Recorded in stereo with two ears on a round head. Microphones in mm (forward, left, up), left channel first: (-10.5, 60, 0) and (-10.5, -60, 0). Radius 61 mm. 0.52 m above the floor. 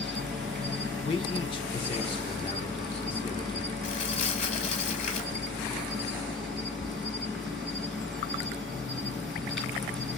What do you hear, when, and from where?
0.0 s an insect: centre (ahead or behind), 2 m
1.1 s a man speaking: 40° left (ahead or behind), 1.0 m
3.8 s crumpling: 55° left (ahead or behind), 1.9 m